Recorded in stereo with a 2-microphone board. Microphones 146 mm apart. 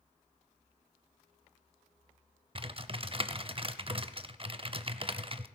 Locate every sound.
2.5 s typing on a keyboard: 40° right (ahead or behind), 0.6 m